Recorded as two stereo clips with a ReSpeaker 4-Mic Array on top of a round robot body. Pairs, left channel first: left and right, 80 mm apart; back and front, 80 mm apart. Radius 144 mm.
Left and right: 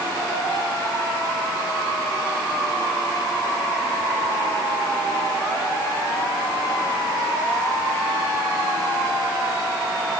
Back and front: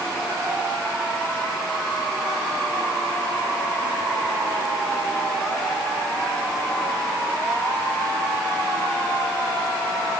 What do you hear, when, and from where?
Only background noise.